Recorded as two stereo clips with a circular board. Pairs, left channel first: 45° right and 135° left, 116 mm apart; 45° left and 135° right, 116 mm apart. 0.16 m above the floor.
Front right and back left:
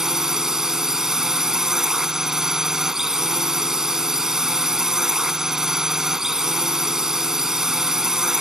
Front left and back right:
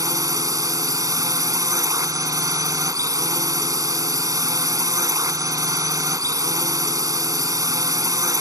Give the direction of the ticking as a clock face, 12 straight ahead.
No ticking in this recording.